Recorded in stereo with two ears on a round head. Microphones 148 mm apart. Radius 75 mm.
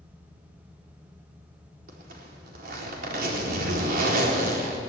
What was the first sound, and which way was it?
A zipper, 65° right (ahead or behind).